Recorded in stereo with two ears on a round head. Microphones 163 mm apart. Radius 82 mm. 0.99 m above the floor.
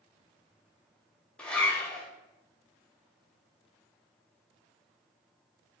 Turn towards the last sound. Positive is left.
turn(degrees=5)  # may be behind; listen again after turning